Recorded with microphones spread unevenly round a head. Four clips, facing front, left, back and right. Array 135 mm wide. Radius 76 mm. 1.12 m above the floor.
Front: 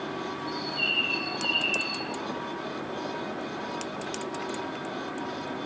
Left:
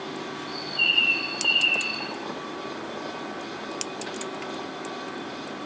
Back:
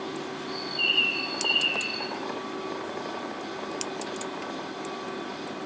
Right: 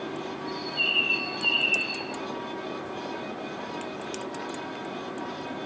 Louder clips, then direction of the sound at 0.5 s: Even, even; 65° left.